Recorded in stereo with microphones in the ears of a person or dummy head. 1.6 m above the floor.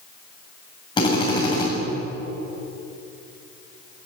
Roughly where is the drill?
Left.